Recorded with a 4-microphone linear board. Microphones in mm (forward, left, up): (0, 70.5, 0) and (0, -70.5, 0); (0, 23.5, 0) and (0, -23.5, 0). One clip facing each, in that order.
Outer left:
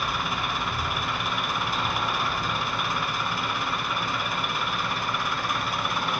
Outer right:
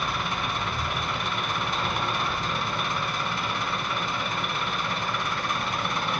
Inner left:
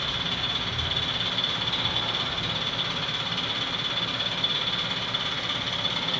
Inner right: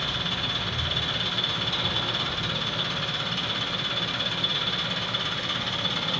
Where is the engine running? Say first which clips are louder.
Even, even; 5° left (ahead or behind), 1.2 m.